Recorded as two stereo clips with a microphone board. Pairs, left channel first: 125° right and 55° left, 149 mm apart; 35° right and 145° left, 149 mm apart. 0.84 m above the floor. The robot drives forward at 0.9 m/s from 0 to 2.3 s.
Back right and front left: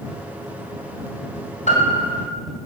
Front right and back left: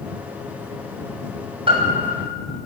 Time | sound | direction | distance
1.7 | a piano | 165° right | 2.5 m